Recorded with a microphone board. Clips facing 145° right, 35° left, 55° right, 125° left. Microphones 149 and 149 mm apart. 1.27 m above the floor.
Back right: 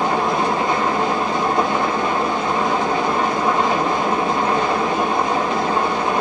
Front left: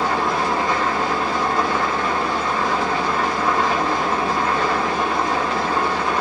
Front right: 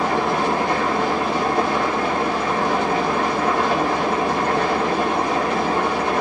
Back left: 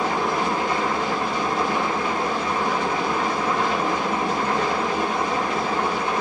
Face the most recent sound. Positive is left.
turn(degrees=-75)